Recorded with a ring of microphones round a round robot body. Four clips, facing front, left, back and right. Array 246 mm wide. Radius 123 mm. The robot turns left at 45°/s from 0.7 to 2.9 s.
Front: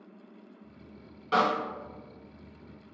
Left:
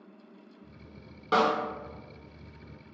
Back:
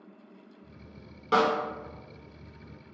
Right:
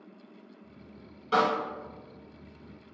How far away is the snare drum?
About 1.5 m.